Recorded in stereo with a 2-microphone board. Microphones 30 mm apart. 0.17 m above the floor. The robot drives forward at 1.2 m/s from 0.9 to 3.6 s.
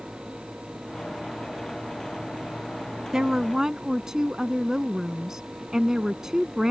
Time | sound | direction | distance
3.1 | a woman speaking | 20° right (ahead or behind) | ?